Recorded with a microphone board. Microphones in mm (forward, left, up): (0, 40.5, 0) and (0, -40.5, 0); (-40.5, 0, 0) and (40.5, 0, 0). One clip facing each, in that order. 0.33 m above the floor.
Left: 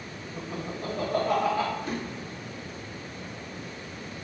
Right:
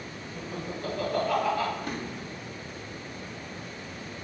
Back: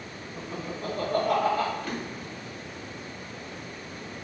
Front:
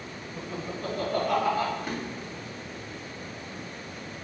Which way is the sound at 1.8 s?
70° right.